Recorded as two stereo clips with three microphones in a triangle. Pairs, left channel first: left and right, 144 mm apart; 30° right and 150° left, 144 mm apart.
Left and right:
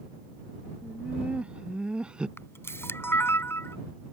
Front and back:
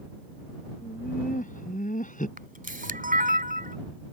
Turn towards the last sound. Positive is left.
turn(degrees=160)